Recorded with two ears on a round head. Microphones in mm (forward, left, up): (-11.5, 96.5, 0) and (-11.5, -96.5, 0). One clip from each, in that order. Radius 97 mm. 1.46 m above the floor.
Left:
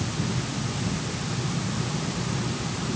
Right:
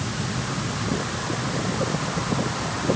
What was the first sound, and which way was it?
Only background noise.